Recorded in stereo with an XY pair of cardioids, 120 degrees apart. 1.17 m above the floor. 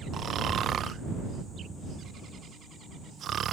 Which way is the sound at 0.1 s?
50° right.